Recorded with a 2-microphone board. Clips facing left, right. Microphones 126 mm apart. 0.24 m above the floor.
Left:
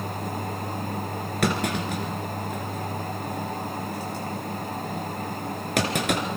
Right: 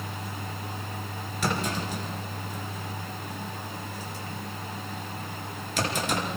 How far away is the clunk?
About 3 m.